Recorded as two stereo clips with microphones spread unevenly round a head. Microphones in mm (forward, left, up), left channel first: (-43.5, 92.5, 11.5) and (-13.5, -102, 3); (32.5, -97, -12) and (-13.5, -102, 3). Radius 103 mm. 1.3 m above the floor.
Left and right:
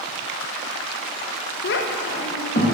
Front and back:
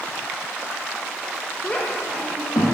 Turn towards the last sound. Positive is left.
turn(degrees=40)